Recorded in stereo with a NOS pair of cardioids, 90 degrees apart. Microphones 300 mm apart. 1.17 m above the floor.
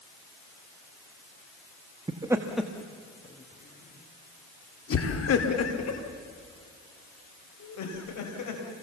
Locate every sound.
2.1 s laughter: 15° right, 1.5 m; by 8.6 s 65° left, 5 m